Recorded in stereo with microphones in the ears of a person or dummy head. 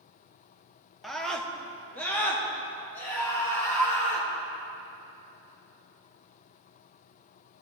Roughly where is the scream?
Centre.